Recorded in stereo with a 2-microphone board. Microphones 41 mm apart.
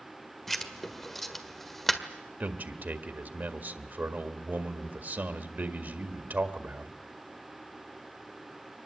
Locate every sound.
0.5 s writing: 5° left (ahead or behind), 1.6 m
2.4 s a man speaking: 45° right (ahead or behind), 1.8 m